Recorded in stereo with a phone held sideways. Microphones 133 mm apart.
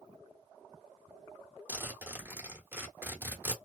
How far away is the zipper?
About 1.1 m.